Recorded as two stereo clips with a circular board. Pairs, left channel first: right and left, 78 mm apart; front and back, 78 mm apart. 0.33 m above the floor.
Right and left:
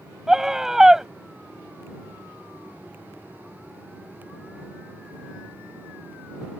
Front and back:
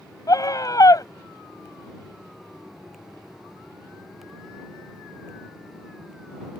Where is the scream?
10° left.